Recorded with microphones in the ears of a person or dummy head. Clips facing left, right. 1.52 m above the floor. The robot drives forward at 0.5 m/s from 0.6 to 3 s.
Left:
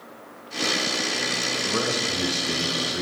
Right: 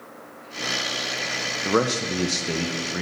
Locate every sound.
1.6 s a man speaking: 80° right, 0.8 m; by 3.0 s 50° right (ahead or behind), 1.1 m